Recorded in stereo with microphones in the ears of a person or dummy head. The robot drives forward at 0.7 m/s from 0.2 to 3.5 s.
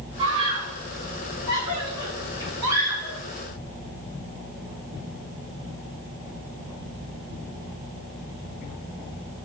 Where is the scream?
30° right (ahead or behind), 4 m; by 3.2 s 20° right (ahead or behind), 5.5 m.